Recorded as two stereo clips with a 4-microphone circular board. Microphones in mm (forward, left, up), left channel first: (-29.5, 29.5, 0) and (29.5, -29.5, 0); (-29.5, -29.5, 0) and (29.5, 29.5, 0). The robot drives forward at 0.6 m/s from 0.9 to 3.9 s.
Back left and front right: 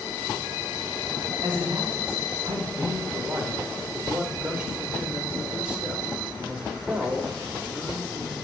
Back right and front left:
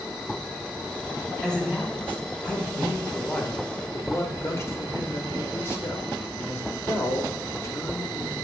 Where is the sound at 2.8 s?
45° right, 1.0 m; by 8.4 s 115° right, 0.9 m.